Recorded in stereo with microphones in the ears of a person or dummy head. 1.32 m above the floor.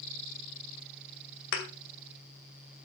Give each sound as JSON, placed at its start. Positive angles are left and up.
{"t": 1.5, "sound": "a thud", "side_deg": 60, "distance_m": 2.0}